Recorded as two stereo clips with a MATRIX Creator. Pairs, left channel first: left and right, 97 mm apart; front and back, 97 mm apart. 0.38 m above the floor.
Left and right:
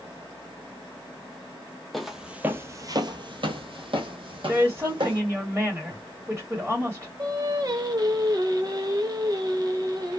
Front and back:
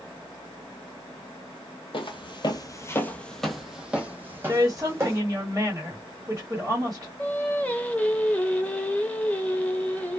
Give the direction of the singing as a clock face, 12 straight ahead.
2 o'clock.